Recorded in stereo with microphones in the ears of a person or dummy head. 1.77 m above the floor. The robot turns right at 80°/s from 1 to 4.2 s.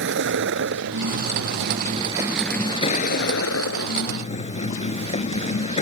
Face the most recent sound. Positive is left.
turn(degrees=145)